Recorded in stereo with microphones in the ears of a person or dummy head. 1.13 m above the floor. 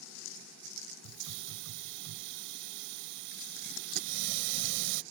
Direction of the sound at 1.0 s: 65° right (ahead or behind).